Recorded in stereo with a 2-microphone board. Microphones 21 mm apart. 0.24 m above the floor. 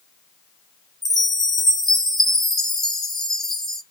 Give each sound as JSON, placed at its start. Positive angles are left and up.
{"t": 1.0, "sound": "a chime", "side_deg": 15, "distance_m": 1.7}